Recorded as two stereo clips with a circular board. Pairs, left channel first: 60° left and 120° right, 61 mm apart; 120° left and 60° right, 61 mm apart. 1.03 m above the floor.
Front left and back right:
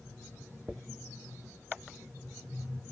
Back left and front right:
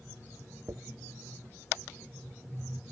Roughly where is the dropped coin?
Ahead right.